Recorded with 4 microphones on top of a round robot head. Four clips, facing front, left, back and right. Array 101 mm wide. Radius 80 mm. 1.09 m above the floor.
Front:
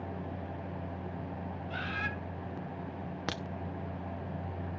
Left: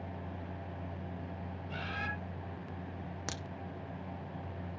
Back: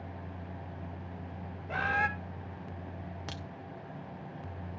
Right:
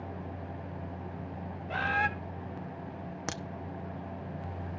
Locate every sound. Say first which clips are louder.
1.7 s a bird: right 12 dB, back 8 dB; 140° right, 1.6 m
3.3 s a crack: right 6 dB, front 8 dB; 30° right, 0.8 m